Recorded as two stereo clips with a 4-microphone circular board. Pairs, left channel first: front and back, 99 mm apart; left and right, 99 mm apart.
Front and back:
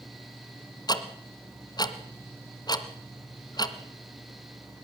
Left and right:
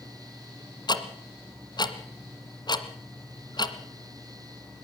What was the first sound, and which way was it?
Ticking, 45° left.